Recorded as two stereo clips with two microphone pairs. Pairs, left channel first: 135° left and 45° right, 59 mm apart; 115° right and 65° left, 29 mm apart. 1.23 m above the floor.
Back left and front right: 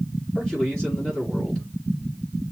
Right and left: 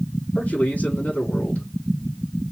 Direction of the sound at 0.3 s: 140° right.